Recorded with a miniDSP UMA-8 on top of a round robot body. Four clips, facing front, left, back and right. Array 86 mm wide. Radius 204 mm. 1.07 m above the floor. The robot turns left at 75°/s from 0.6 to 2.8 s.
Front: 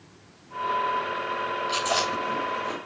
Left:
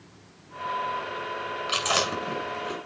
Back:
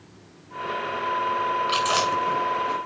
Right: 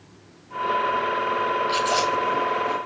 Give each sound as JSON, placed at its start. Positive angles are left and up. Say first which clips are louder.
{"t": 1.7, "sound": "chewing", "louder": "right 6 dB, back 4 dB", "azimuth_deg": 140, "distance_m": 6.0}